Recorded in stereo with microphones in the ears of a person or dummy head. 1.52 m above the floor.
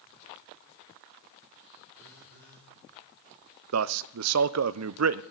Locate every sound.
2.0 s a phone buzzing: 65° right (ahead or behind), 2.5 m
3.7 s a man speaking: 85° right, 0.6 m